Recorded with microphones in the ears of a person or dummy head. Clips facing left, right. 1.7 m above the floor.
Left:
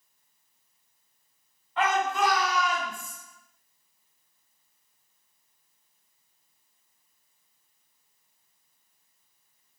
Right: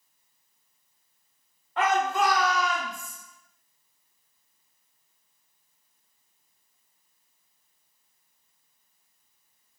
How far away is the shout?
About 1.1 m.